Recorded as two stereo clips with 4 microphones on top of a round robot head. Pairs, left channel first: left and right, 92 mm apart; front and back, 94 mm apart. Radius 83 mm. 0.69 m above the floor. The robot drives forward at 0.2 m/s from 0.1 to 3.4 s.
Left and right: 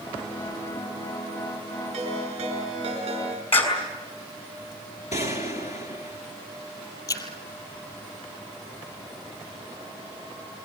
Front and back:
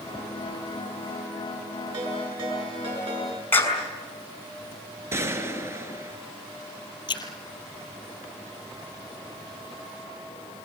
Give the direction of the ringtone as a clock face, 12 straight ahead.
4 o'clock.